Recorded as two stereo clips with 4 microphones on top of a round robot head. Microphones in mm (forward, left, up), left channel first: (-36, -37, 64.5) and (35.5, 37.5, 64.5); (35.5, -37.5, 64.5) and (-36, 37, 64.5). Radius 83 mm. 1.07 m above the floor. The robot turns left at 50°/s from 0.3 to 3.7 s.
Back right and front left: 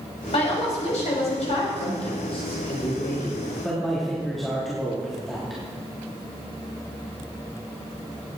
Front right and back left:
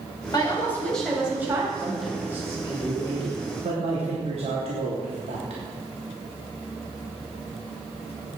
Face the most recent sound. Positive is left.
turn(degrees=140)